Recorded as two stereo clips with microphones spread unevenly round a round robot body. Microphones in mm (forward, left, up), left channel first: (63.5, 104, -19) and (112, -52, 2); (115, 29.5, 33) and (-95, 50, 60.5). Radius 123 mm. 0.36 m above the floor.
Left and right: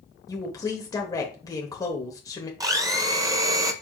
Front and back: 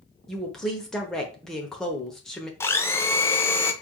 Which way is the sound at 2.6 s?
20° right.